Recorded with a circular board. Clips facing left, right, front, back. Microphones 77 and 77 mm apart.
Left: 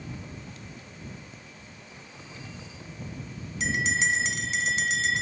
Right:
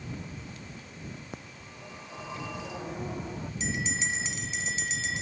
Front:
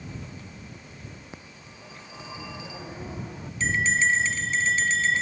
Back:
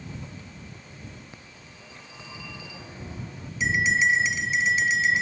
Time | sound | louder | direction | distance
1.3 | a phone ringing | right 3 dB, front 2 dB | 70° right | ?
3.6 | a bell | left 7 dB, back 1 dB | 100° left | ?